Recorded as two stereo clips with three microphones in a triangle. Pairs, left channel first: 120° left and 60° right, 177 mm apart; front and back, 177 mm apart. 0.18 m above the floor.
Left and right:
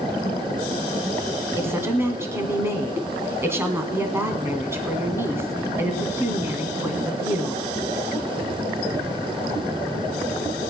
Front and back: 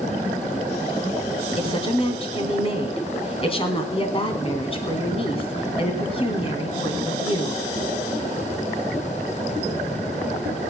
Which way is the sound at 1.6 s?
5° left.